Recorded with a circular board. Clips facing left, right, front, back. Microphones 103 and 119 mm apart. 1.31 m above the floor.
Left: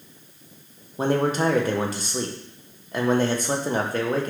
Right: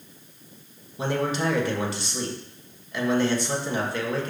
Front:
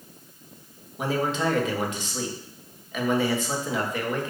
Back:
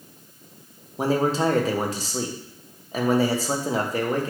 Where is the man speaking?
130° left, 1.1 m.